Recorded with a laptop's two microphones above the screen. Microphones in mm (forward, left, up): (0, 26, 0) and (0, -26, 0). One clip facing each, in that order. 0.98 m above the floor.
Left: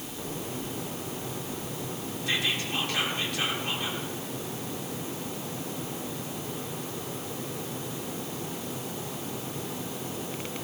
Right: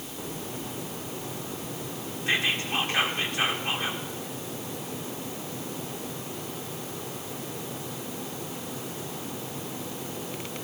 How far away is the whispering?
About 3.5 m.